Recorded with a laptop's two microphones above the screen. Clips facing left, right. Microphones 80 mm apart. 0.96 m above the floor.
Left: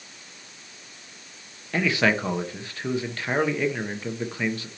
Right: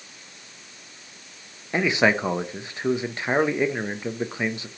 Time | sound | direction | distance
1.7 | a man speaking | 20° right (ahead or behind) | 0.5 m